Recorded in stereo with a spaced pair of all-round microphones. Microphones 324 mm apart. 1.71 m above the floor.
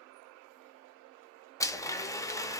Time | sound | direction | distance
1.6 | a blender | 10° left (ahead or behind) | 0.6 m